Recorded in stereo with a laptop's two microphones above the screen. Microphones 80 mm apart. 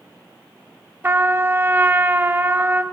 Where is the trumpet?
25° right (ahead or behind), 1.0 m.